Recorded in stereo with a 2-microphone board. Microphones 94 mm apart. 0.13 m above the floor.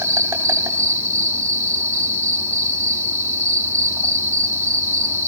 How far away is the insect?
About 2 m.